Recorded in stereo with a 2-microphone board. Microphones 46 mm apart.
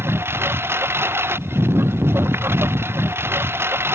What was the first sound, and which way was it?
A lawn mower, 55° right (ahead or behind).